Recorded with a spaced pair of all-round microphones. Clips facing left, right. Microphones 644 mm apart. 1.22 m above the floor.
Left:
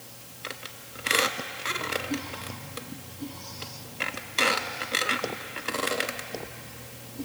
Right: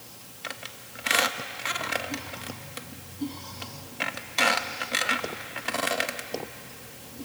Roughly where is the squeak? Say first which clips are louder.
Left 1 dB; right.